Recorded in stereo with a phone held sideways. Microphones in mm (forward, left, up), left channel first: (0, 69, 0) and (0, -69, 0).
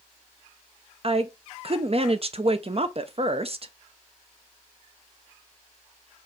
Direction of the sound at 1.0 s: 45° right (ahead or behind).